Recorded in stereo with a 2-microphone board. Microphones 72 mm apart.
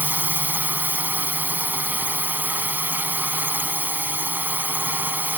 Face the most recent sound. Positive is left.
turn(degrees=-25)  # may be behind; listen again after turning